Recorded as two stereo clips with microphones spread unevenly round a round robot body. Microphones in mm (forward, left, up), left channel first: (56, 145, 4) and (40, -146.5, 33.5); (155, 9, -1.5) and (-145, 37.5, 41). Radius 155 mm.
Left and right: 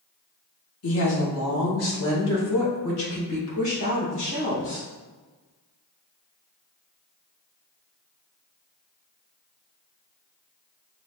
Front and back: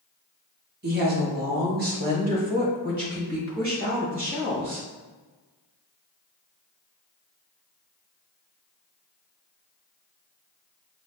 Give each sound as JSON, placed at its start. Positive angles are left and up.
{"t": 0.8, "sound": "a woman speaking", "azimuth_deg": 120, "distance_m": 1.2}